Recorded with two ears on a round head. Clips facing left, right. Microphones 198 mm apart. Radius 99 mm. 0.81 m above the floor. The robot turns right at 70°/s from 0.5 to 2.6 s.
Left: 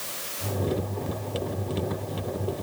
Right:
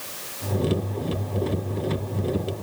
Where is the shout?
I don't hear a shout.